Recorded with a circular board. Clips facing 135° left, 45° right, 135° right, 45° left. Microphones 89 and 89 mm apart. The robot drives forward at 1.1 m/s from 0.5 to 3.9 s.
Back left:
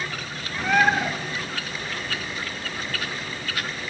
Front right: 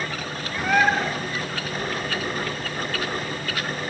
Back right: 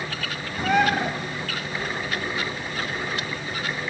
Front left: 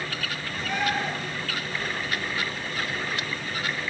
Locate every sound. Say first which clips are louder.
0.6 s a bird: even, back right 7 dB; 125° right, 0.9 m; by 1.1 s 145° right, 1.4 m